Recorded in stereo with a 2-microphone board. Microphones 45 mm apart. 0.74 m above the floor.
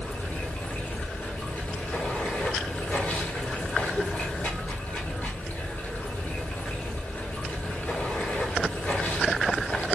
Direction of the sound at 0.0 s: 45° left (ahead or behind).